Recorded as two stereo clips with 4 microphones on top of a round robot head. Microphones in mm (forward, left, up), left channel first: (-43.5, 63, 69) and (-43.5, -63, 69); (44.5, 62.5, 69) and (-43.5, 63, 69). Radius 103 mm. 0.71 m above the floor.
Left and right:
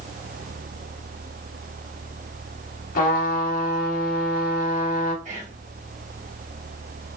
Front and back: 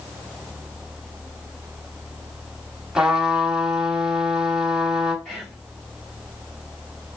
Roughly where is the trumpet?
Left.